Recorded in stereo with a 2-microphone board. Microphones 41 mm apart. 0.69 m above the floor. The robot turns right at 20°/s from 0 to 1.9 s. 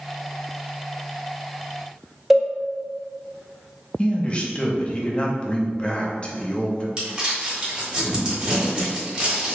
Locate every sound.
2.3 s a cowbell: 5° right (ahead or behind), 1.2 m
4.0 s a man speaking: 30° left (ahead or behind), 0.7 m
7.0 s crumpling: 30° right (ahead or behind), 1.6 m